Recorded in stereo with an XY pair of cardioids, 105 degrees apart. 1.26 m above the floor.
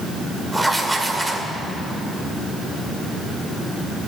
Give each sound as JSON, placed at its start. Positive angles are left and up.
{"t": 0.5, "sound": "writing", "azimuth_deg": -10, "distance_m": 2.0}